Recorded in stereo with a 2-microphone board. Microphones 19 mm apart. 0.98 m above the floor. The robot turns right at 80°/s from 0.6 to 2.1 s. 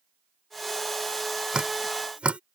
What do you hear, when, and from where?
1.5 s dripping: 40° right (ahead or behind); by 2.4 s 80° right